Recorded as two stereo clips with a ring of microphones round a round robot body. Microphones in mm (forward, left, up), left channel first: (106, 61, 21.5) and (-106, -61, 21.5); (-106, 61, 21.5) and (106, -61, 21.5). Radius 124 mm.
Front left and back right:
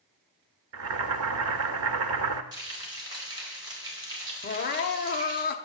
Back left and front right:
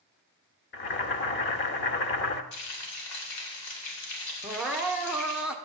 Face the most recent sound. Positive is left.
turn(degrees=55)